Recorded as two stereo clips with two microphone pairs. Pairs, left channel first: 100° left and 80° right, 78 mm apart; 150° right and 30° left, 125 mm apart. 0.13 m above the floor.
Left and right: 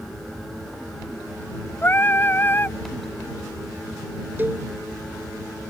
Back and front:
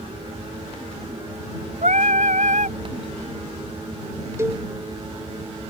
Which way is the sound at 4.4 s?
30° right.